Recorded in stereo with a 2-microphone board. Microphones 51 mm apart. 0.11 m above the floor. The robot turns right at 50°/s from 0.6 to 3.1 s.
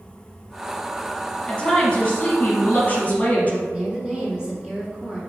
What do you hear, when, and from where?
1.5 s a woman speaking: 20° left, 1.4 m; by 3.6 s 100° left, 1.4 m
3.7 s a woman speaking: 15° right (ahead or behind), 1.3 m